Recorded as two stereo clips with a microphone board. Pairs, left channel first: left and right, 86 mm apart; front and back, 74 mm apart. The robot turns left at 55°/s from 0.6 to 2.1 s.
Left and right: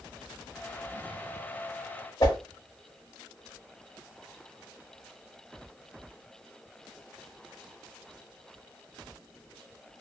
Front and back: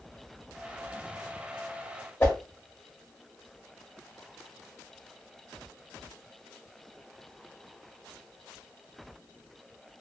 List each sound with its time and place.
2.2 s a whoosh: 60° left, 1.2 m